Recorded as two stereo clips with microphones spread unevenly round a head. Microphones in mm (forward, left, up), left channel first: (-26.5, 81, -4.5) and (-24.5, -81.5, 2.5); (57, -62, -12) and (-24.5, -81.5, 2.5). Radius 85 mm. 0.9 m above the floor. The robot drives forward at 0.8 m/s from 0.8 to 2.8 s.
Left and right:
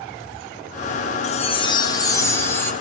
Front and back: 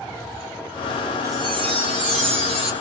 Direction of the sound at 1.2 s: 125° left.